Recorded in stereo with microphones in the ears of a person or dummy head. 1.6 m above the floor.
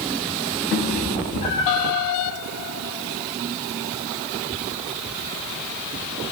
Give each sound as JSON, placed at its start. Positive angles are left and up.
{"t": 0.7, "sound": "a cat meowing", "side_deg": 20, "distance_m": 1.1}